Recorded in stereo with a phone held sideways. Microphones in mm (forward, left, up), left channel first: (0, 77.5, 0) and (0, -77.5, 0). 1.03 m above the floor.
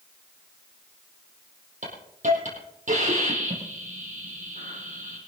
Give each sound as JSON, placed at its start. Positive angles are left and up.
{"t": 1.8, "sound": "a hiss", "side_deg": -55, "distance_m": 7.0}